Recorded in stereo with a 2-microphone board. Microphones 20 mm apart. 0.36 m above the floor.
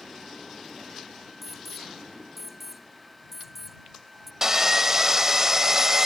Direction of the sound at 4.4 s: 25° right (ahead or behind).